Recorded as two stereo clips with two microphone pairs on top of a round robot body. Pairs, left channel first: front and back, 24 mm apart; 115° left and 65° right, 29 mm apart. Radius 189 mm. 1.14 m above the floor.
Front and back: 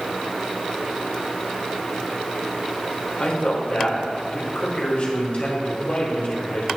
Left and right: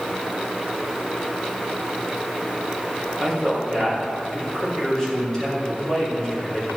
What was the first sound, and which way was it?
A man speaking, 45° left.